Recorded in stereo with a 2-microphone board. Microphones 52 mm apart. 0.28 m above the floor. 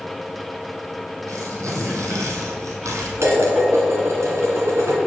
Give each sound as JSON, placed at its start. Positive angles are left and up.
{"t": 1.3, "sound": "tearing paper", "side_deg": -85, "distance_m": 1.7}
{"t": 3.2, "sound": "dishes clattering", "side_deg": -65, "distance_m": 1.9}